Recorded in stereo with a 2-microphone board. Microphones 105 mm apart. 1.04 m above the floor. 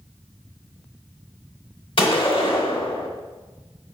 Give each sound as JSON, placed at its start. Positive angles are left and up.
{"t": 2.0, "sound": "a gunshot", "side_deg": 55, "distance_m": 1.8}